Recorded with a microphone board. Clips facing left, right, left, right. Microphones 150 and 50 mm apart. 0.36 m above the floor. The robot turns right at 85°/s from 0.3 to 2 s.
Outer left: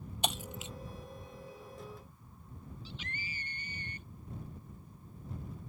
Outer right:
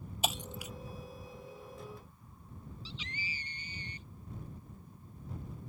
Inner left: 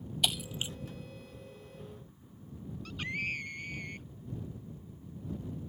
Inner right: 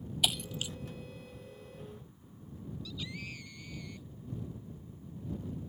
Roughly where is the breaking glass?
Centre.